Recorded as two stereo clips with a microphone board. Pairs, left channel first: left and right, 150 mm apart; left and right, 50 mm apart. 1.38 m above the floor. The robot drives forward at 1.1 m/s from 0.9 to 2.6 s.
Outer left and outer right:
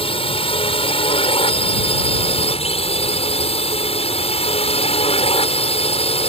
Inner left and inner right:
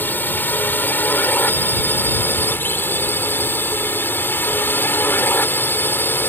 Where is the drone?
40° left (ahead or behind).